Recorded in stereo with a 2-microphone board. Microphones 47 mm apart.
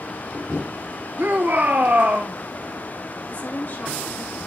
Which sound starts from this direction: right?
A shout, at 1.2 s.